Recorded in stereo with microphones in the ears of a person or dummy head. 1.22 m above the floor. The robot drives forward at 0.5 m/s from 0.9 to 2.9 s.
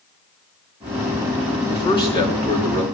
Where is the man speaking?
30° left (ahead or behind), 2.5 m; by 2.8 s 25° left (ahead or behind), 3 m.